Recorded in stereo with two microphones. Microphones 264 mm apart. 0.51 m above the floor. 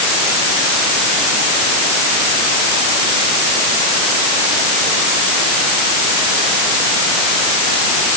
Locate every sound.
Only background noise.